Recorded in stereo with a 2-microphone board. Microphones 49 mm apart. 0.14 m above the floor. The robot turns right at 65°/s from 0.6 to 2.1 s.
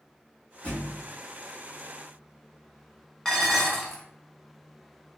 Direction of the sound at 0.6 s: 25° left (ahead or behind).